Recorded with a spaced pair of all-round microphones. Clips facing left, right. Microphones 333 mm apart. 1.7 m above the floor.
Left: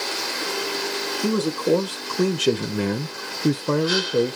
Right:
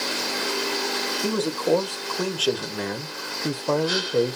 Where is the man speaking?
20° left (ahead or behind), 1.4 m; by 4.4 s 10° left (ahead or behind), 1.0 m.